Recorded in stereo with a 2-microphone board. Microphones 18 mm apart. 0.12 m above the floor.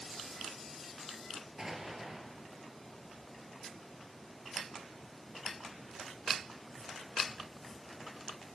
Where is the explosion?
30° right (ahead or behind), 3 m.